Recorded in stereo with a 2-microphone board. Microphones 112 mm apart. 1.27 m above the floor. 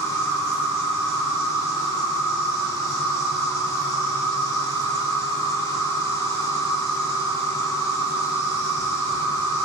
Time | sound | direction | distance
0.0 | an insect | 30° left (ahead or behind) | 1.1 m